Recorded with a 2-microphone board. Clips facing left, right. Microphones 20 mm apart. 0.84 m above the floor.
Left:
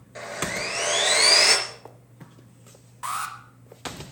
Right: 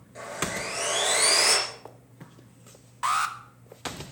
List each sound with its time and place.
0.1 s sawing: 30° left (ahead or behind), 4 m
3.0 s an alarm: 25° right (ahead or behind), 1.5 m